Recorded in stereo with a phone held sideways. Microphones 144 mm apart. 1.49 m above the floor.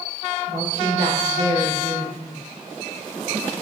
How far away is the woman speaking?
About 1.4 m.